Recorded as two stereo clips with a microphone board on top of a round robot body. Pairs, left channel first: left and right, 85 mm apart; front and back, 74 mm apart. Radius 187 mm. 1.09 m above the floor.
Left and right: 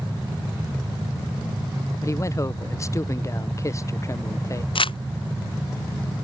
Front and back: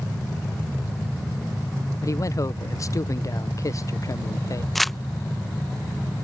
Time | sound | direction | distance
2.0 | a man speaking | 40° left | ?
4.8 | crumpling | 90° left | ?